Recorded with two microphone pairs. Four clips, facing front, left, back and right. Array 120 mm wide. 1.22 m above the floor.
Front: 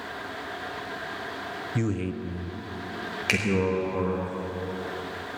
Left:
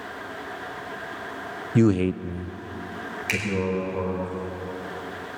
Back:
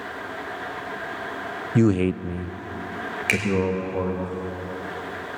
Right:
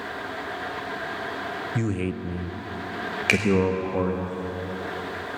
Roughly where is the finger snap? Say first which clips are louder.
Right 7 dB, back 2 dB; right.